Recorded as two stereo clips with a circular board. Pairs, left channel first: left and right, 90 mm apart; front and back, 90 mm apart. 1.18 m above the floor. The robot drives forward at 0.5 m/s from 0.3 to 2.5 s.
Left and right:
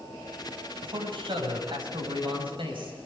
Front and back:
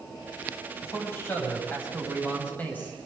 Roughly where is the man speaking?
Ahead right.